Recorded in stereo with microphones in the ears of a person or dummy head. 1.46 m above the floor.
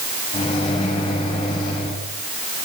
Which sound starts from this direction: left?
A microwave, at 0.3 s.